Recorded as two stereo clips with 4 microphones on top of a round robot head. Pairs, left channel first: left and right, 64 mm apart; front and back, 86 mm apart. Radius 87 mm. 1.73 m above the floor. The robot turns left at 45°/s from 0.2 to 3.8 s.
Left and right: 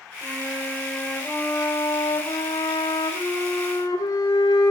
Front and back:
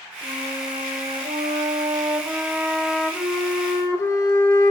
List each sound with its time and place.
0.2 s a flute: 145° right, 7.5 m; by 4.7 s 55° left, 7.5 m